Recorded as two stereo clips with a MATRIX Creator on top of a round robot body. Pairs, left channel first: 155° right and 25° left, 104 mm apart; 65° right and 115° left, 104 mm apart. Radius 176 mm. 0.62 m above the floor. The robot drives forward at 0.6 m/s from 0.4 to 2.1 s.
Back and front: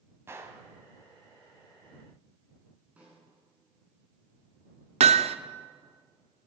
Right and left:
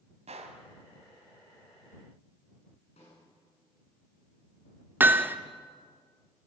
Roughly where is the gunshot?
Left.